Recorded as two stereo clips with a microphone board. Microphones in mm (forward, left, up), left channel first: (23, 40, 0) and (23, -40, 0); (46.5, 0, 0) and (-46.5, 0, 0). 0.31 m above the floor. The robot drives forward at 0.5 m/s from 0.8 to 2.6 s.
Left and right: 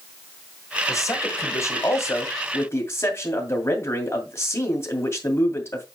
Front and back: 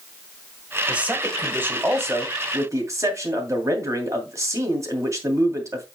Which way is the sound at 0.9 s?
110° left.